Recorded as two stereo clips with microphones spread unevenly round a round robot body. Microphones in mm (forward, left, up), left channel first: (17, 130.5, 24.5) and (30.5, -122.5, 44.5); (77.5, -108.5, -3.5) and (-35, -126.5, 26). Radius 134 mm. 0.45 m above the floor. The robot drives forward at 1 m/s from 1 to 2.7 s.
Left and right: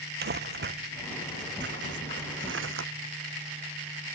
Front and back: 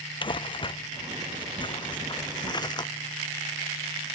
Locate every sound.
0.2 s crumpling: 35° right; by 2.9 s 45° right